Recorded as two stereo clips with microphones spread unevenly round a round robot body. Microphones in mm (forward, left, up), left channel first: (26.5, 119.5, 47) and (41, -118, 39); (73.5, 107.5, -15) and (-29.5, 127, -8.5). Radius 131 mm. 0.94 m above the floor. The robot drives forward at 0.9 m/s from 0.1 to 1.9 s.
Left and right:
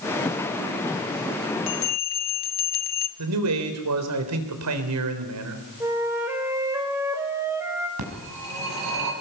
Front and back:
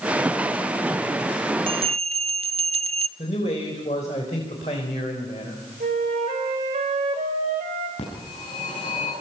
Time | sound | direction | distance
1.7 | a bell | 135° left | 0.5 m
3.2 | a man speaking | 75° right | 3.5 m
5.8 | a flute | 165° right | 2.5 m
8.0 | a phone ringing | 80° right | 5.5 m